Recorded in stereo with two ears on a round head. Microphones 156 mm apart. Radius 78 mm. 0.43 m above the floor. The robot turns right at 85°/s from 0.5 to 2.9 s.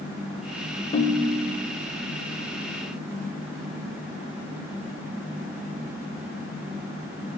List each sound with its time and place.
0.9 s a ringtone: 145° left, 0.6 m; by 1.8 s 145° right, 0.6 m